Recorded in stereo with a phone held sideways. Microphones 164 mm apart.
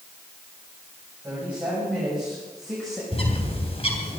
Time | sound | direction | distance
1.2 | a woman speaking | 10° right (ahead or behind) | 7 m
3.1 | a bird | 40° left (ahead or behind) | 3 m